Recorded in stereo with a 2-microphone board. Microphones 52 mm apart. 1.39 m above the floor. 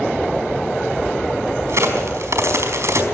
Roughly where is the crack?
Right.